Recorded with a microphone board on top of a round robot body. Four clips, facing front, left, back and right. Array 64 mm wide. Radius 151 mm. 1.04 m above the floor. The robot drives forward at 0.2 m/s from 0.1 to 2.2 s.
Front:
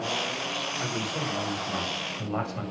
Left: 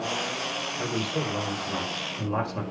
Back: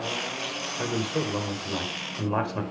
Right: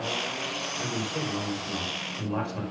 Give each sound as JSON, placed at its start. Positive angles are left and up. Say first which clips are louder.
{"t": 0.8, "sound": "a man speaking", "louder": "left 3 dB, back 7 dB", "azimuth_deg": 165, "distance_m": 5.0}